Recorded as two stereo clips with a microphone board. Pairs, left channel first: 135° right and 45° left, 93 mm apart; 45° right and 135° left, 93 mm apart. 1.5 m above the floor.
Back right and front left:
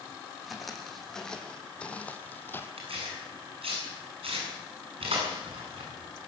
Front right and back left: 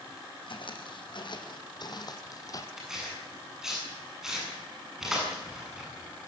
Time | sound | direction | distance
0.5 | footsteps | 45° right | 3 m
2.8 | tearing paper | 50° left | 8 m